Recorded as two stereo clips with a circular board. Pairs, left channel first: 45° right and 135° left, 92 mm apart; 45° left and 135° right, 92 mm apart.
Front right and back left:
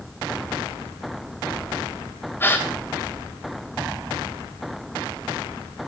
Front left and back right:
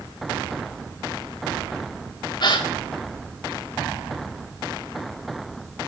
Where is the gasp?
20° left, 3 m.